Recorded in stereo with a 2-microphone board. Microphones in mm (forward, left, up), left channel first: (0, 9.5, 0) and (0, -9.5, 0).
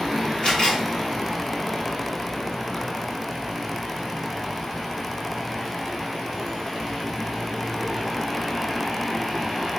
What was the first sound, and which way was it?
A camera shutter, 55° left (ahead or behind).